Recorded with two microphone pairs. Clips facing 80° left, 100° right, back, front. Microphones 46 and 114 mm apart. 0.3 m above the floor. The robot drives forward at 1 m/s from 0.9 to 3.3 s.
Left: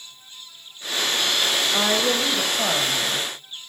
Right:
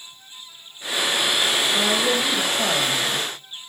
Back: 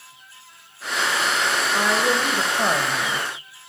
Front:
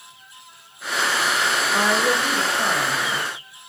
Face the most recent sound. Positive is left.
turn(degrees=170)